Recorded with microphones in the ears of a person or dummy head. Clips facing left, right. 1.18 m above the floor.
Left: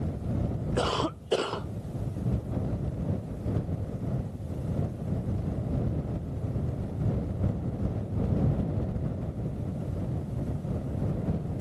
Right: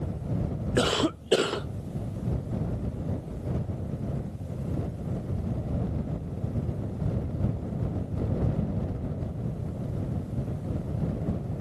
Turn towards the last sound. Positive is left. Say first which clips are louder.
# right 5 dB
turn(degrees=-20)  # may be behind; listen again after turning